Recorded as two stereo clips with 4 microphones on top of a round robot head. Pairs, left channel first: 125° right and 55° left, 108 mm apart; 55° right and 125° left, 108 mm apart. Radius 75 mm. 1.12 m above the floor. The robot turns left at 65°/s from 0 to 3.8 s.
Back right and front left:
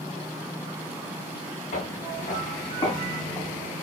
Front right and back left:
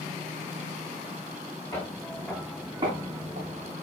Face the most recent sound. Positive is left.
turn(degrees=115)